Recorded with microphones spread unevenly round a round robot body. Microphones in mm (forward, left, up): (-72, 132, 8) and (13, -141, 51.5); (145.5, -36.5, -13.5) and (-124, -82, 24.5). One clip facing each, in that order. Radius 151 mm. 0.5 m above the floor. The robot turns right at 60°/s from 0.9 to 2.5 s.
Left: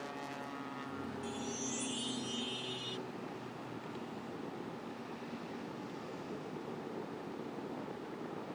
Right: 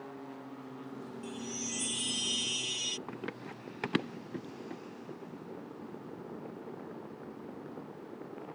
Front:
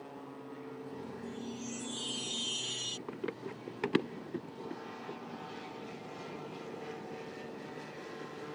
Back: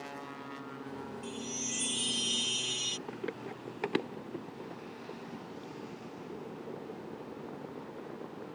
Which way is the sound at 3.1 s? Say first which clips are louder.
Right 3 dB, front 1 dB; 65° right.